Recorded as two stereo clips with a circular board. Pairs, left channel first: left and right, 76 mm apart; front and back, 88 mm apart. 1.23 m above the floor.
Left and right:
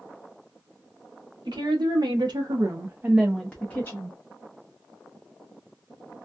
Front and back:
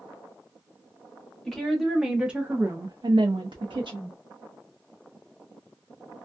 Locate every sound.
1.4 s a woman speaking: 85° right, 1.3 m; by 4.2 s 145° left, 0.9 m